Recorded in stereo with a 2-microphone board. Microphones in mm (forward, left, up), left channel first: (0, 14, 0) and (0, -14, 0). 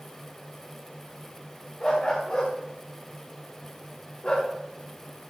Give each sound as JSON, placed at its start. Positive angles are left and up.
{"t": 1.8, "sound": "a dog barking", "side_deg": 30, "distance_m": 6.0}